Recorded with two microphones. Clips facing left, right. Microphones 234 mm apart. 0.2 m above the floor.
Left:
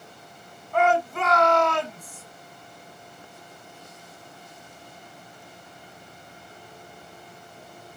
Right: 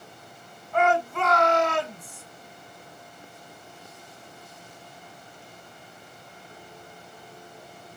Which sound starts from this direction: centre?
A shout, at 0.7 s.